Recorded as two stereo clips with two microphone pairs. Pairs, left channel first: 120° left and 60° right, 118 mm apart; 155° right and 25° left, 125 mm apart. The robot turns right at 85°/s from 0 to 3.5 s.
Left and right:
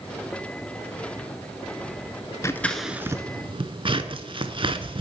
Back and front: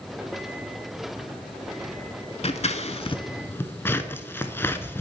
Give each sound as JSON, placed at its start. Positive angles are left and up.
{"t": 2.4, "sound": "scissors", "azimuth_deg": -175, "distance_m": 0.5}